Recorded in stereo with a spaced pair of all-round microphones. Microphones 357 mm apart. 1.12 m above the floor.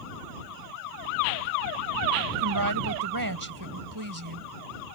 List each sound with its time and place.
2.4 s a woman speaking: 65° right (ahead or behind)